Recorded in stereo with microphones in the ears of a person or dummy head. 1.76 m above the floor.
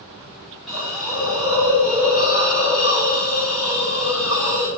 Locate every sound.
0.7 s a hiss: centre (ahead or behind), 2 m